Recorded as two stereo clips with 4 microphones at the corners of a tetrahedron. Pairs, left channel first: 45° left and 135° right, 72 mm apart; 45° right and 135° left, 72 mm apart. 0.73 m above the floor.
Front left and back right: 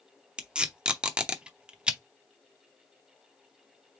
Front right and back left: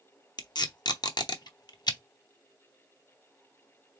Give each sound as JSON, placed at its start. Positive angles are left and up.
{"t": 0.4, "sound": "tape being pulled", "azimuth_deg": -60, "distance_m": 0.7}